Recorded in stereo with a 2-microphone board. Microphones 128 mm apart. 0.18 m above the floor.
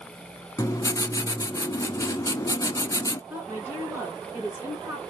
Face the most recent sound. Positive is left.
turn(degrees=-15)  # may be behind; listen again after turning